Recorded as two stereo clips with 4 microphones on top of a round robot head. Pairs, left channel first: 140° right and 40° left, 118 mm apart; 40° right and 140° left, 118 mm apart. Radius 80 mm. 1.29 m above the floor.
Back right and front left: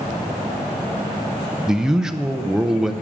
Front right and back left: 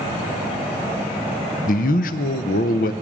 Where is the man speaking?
50° right, 0.5 m.